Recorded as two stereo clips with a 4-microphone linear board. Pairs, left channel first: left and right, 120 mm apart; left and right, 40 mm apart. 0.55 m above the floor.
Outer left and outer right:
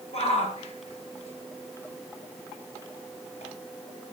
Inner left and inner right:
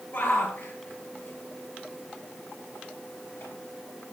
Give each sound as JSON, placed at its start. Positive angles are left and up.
{"t": 0.1, "sound": "a shout", "side_deg": 55, "distance_m": 7.0}